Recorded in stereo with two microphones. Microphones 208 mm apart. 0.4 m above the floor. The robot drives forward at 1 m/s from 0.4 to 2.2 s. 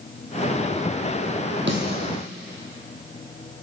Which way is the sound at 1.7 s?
60° right (ahead or behind).